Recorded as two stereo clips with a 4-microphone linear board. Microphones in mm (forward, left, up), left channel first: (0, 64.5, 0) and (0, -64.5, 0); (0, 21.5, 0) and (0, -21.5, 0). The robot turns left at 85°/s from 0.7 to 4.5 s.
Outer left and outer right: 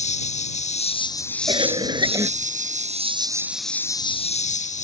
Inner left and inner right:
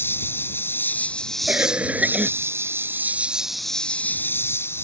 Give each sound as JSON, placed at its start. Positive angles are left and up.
{"t": 0.0, "sound": "an insect", "azimuth_deg": 70}
{"t": 1.5, "sound": "a cough", "azimuth_deg": -75}